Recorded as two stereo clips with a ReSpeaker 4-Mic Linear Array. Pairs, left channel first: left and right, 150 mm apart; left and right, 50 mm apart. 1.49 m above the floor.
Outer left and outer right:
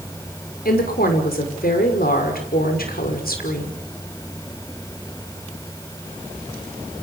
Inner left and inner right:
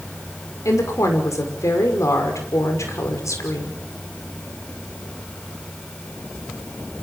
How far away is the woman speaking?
About 5.5 m.